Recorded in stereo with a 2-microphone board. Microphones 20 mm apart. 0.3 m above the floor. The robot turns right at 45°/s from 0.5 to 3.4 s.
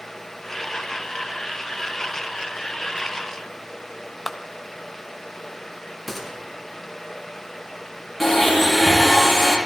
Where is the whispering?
I don't hear whispering.